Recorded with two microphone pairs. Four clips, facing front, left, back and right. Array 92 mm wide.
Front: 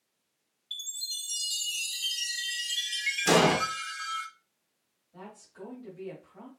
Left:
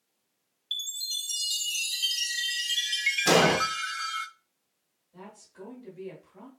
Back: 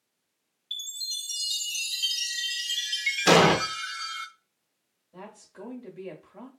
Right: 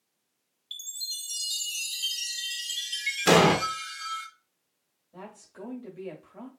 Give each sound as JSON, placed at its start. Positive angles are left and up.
{"t": 0.7, "sound": "a chime", "azimuth_deg": 105, "distance_m": 0.5}
{"t": 3.3, "sound": "an explosion", "azimuth_deg": -145, "distance_m": 0.7}
{"t": 5.1, "sound": "a woman speaking", "azimuth_deg": -130, "distance_m": 1.7}